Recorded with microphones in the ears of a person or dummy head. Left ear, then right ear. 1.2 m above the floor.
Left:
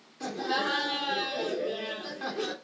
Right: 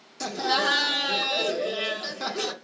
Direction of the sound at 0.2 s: 85° right.